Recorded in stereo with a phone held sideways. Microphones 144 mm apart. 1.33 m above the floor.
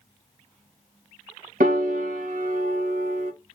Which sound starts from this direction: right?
A piano, at 1.6 s.